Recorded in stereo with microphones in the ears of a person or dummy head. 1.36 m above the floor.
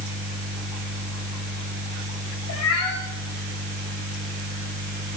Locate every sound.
2.5 s a cat meowing: 65° left (ahead or behind), 2.5 m